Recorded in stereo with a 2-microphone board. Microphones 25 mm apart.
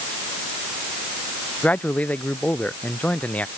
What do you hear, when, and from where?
1.6 s a man speaking: 85° left; by 3.5 s 80° left